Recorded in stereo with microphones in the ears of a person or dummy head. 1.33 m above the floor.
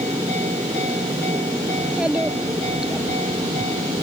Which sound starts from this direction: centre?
A child speaking, at 1.8 s.